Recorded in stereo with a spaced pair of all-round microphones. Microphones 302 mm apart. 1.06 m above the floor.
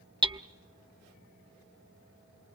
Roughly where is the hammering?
Centre.